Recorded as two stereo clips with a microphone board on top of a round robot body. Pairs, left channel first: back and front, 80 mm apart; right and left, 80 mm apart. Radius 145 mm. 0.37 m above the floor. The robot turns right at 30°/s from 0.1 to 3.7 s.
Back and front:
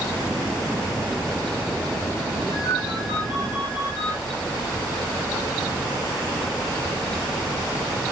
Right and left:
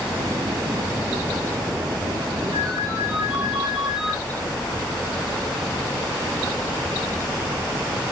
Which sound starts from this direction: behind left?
A ringtone, at 2.5 s.